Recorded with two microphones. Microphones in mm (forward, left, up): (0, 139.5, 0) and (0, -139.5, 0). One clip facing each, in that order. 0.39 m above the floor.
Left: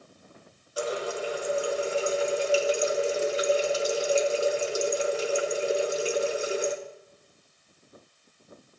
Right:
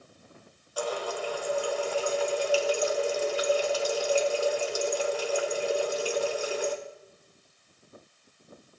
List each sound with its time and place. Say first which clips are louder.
0.8 s a running tap: left 2 dB; 25° left (ahead or behind), 0.8 m